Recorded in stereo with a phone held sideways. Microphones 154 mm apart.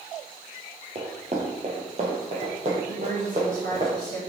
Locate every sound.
0.9 s running footsteps: 40° right (ahead or behind), 1.9 m; by 3.9 s 45° right (ahead or behind), 4 m
2.9 s a woman speaking: 70° right (ahead or behind), 3 m